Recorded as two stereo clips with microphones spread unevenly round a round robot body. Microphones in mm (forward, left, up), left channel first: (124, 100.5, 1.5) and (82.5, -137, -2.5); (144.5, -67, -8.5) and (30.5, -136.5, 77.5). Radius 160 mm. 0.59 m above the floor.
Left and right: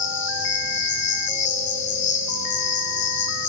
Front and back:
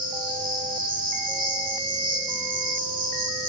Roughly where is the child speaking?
No child speaking in this recording.